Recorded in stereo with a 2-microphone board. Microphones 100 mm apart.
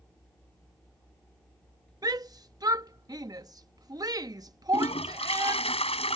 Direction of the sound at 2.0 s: 40° right (ahead or behind).